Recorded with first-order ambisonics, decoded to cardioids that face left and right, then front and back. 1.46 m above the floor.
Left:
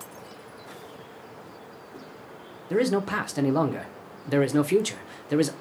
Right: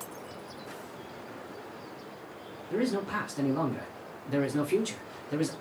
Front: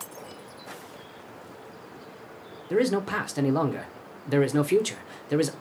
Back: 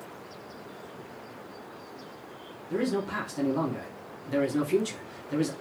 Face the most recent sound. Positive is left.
turn(degrees=50)